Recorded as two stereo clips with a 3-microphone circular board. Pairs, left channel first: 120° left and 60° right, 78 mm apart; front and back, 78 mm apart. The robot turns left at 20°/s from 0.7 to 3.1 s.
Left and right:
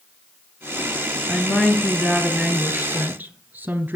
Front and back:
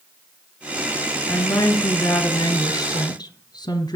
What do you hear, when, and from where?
1.3 s a woman speaking: 45° left, 3.5 m; by 4.0 s 5° left, 3.5 m